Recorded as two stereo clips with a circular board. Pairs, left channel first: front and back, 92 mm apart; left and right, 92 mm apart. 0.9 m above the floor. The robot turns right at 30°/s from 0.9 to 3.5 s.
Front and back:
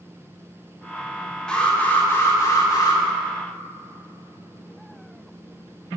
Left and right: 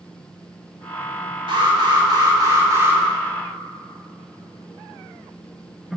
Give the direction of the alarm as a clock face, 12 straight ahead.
3 o'clock.